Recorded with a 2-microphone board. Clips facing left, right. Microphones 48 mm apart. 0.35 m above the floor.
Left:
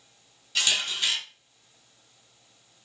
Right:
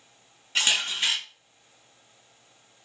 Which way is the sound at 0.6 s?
35° right (ahead or behind).